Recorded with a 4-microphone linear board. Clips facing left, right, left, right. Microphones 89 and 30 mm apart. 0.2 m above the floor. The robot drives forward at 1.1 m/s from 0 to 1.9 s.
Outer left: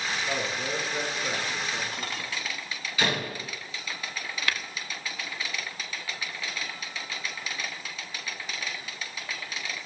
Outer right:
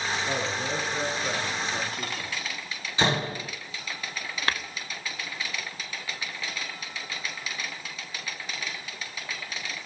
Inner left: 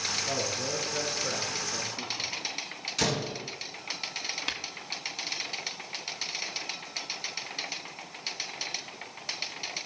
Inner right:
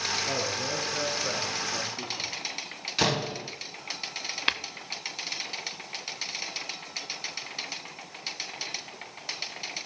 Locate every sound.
0.2 s a man speaking: 25° right (ahead or behind), 3.5 m; by 2.3 s 15° right (ahead or behind), 5 m
3.0 s a door slam: 30° right (ahead or behind), 0.9 m
4.5 s tapping: 35° right (ahead or behind), 0.6 m